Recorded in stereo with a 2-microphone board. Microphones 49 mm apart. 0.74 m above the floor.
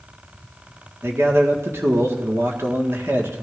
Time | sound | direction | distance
1.0 | a man speaking | 55° right (ahead or behind) | 1.8 m